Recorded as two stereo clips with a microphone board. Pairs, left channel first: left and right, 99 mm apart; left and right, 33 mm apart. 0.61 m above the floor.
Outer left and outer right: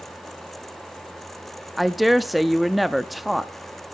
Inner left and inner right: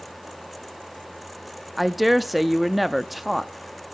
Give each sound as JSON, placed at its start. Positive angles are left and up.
{"t": 1.8, "sound": "a woman speaking", "side_deg": 0, "distance_m": 0.5}